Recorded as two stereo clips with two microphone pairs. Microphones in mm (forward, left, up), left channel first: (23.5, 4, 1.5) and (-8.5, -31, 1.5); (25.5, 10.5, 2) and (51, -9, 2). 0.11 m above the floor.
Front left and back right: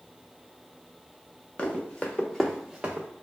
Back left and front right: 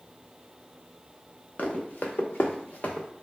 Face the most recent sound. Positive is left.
turn(degrees=175)